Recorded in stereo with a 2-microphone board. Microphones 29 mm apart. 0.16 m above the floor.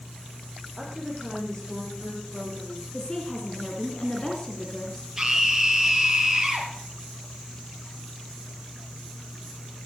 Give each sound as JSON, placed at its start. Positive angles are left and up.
{"t": 0.8, "sound": "a woman speaking", "side_deg": 10, "distance_m": 8.0}
{"t": 2.9, "sound": "a woman speaking", "side_deg": 25, "distance_m": 2.0}
{"t": 5.2, "sound": "a scream", "side_deg": -15, "distance_m": 4.5}